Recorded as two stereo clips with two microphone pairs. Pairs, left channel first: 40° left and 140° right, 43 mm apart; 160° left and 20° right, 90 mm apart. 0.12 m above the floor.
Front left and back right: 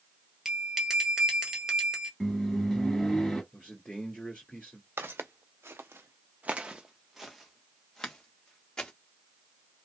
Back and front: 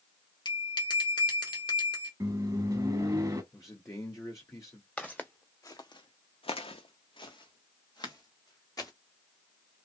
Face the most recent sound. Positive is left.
turn(degrees=110)